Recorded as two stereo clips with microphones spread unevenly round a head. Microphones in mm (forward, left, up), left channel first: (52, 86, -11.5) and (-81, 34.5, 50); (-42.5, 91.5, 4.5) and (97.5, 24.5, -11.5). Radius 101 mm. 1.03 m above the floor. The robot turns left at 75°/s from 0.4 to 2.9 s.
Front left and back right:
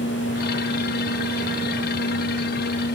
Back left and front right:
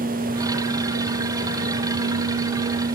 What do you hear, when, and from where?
Only background noise.